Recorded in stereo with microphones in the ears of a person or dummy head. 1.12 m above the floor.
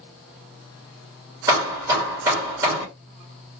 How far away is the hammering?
About 2.0 m.